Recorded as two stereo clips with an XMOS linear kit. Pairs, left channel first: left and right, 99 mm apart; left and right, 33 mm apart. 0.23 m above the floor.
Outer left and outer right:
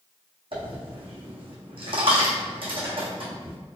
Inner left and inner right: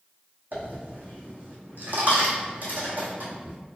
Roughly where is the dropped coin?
Right.